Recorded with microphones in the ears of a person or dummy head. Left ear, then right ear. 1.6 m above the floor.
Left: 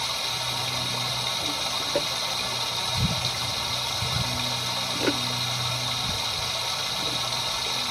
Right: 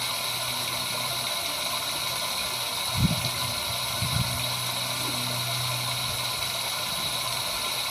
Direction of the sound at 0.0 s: 5° right (ahead or behind).